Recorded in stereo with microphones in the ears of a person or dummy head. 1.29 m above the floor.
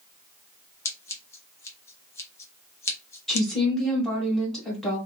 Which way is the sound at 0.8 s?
15° left (ahead or behind).